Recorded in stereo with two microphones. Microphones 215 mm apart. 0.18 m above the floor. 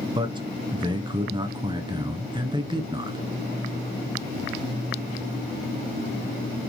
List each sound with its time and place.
0.1 s a man speaking: 20° right (ahead or behind), 1.8 m